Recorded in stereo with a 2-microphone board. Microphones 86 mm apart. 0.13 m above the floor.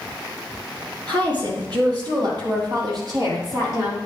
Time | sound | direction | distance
1.1 | a woman speaking | 70° right (ahead or behind) | 4 m